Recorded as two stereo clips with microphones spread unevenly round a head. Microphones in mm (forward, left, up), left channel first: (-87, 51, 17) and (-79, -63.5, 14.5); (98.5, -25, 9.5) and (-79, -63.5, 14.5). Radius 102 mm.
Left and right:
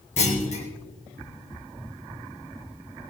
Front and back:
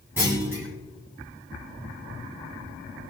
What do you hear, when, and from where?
0.2 s a clunk: 115° left, 4 m